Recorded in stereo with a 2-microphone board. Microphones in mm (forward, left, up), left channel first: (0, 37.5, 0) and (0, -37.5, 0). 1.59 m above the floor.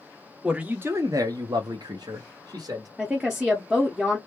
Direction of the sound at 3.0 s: 10° right (ahead or behind).